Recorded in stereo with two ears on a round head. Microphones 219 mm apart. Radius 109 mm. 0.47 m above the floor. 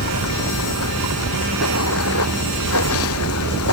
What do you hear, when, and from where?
0.0 s running water: 65° left (ahead or behind)